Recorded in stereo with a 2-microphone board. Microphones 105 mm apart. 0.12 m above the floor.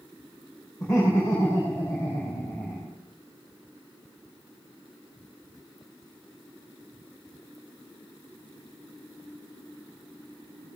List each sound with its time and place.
0.8 s laughter: 35° left (ahead or behind), 5 m; by 3.0 s 25° left (ahead or behind), 3.5 m